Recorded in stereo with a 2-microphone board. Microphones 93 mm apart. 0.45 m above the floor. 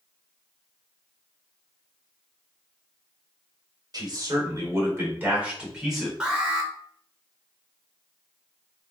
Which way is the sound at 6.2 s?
10° right (ahead or behind).